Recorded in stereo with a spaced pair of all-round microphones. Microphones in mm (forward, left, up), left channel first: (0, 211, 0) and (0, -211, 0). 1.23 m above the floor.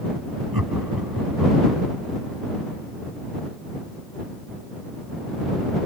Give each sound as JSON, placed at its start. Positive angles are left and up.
{"t": 0.5, "sound": "laughter", "side_deg": -55}